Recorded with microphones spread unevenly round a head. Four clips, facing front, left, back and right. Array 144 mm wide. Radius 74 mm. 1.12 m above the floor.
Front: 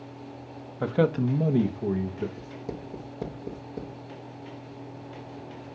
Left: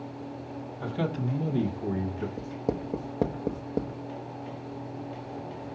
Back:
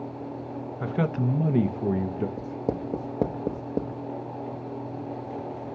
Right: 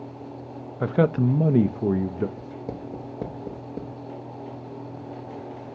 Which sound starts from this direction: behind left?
Writing, at 2.4 s.